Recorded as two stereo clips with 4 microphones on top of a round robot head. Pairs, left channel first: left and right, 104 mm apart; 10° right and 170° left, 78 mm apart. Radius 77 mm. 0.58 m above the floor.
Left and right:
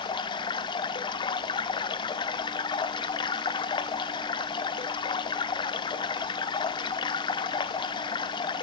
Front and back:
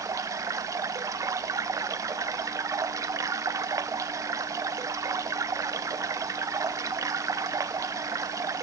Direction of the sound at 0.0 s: 130° left.